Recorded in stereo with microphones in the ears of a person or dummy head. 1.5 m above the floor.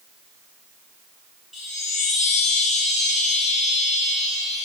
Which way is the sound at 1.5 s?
5° left (ahead or behind).